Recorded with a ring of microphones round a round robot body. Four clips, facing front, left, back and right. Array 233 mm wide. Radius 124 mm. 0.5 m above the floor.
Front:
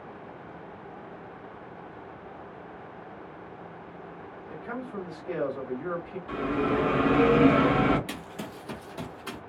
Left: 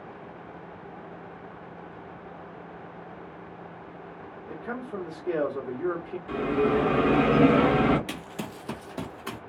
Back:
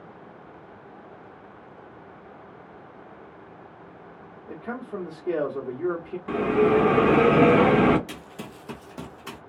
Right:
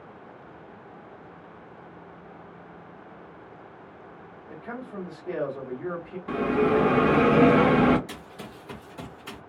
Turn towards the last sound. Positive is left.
turn(degrees=105)